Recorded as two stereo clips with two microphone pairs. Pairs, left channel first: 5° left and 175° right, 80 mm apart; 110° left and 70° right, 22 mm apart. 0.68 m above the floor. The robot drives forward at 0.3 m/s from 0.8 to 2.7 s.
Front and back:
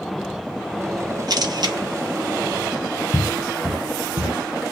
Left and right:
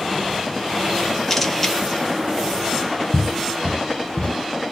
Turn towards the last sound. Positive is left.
turn(degrees=130)